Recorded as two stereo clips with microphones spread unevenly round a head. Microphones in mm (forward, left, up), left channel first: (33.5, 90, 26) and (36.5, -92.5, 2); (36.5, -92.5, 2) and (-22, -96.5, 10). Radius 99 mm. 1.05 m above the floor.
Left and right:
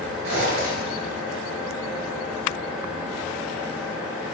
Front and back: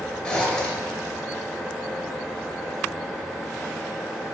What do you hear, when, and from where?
0.2 s a zipper: 70° right, 1.1 m